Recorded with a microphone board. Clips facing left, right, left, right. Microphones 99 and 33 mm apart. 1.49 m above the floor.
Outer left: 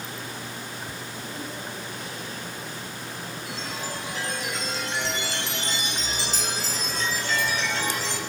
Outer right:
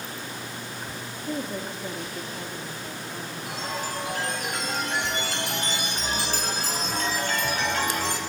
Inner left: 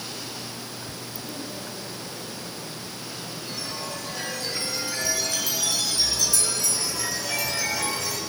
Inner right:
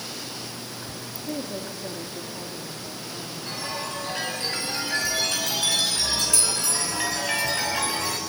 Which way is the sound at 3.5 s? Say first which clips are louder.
Outer right 4 dB, inner right 3 dB; 50° right (ahead or behind).